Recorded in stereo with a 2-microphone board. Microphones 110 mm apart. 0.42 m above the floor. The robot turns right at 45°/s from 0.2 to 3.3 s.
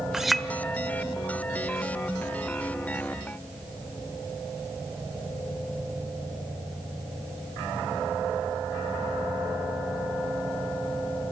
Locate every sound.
0.1 s a clink: 5° right (ahead or behind), 0.8 m; by 0.5 s 5° left (ahead or behind), 0.8 m